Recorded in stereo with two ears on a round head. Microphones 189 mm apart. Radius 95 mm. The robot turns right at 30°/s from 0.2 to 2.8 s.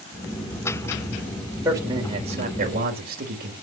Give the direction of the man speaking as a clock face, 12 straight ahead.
6 o'clock.